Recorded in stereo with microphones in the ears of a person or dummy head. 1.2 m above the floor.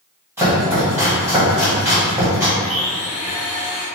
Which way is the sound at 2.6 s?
40° left (ahead or behind).